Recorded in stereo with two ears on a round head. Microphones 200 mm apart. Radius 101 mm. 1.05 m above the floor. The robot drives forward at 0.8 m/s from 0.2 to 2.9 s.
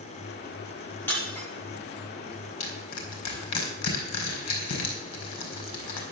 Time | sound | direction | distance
1.1 | breaking glass | 10° left (ahead or behind) | 8.5 m
2.6 | crushing | 90° left | 5 m